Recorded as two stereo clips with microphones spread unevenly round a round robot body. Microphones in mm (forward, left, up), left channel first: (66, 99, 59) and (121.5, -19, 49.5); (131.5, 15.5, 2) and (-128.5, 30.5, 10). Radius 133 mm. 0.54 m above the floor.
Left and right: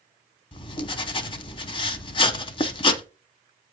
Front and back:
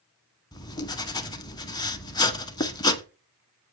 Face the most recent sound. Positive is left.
turn(degrees=70)